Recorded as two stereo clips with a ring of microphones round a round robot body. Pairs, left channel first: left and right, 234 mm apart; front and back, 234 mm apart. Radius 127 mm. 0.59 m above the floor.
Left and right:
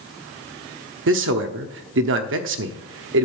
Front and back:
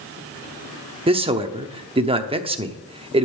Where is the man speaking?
115° right, 0.9 m.